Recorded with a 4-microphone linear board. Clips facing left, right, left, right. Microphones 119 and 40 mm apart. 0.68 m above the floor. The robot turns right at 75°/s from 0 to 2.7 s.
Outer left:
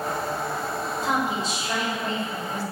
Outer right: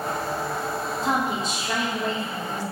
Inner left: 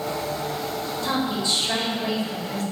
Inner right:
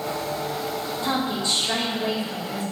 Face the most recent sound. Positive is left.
turn(degrees=-15)